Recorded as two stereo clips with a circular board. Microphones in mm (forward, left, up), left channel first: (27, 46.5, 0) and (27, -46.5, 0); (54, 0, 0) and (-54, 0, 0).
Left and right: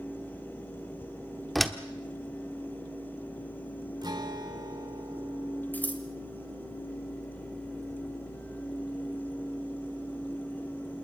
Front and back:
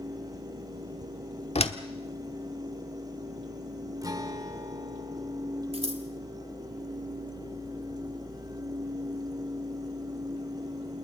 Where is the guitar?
125° right, 1.7 m.